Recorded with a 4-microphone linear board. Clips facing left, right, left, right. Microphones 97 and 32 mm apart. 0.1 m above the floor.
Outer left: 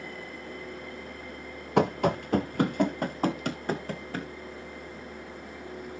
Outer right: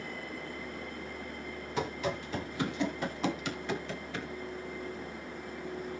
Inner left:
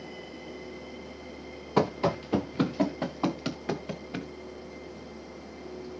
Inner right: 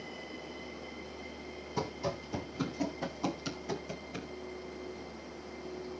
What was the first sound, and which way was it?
Running footsteps, 60° left (ahead or behind).